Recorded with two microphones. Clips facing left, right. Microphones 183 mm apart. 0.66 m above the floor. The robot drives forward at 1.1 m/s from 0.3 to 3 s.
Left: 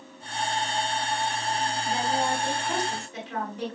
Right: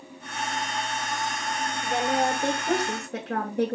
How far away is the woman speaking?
About 7 m.